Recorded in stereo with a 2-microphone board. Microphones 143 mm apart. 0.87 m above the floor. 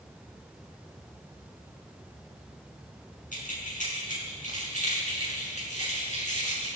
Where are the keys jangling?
65° left (ahead or behind), 6 m; by 6.7 s 55° left (ahead or behind), 7.5 m.